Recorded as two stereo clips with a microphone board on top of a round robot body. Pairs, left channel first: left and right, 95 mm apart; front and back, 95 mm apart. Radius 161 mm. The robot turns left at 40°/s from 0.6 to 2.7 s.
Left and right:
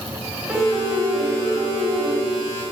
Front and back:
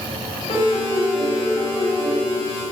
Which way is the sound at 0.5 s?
10° right.